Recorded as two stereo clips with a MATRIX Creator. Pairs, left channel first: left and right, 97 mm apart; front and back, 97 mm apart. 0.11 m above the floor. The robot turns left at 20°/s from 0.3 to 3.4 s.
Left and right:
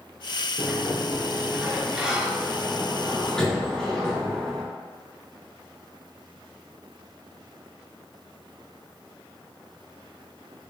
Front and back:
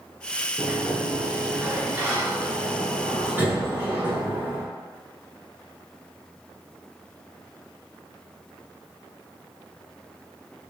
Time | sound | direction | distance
0.6 | a sliding door | 140° right | 1.1 m